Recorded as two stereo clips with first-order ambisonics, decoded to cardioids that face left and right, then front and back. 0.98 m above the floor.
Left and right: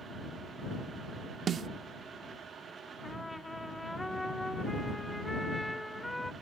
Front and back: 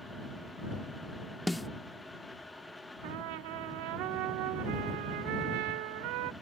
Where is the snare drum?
80° right.